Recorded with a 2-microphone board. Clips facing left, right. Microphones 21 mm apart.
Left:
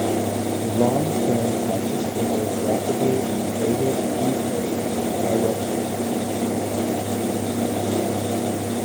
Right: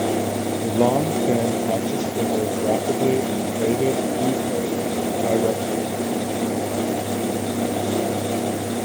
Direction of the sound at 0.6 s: 85° right.